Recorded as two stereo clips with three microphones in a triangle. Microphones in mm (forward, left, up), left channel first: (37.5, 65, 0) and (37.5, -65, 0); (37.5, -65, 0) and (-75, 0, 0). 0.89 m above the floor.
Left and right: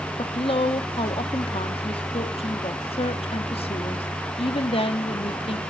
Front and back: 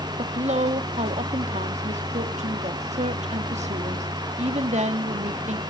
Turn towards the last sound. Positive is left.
turn(degrees=130)